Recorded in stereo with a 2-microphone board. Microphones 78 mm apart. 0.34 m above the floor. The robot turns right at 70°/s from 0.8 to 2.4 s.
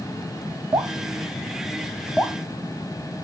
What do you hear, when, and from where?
0.7 s dripping: 75° right (ahead or behind), 0.7 m; by 2.4 s 30° left (ahead or behind), 0.7 m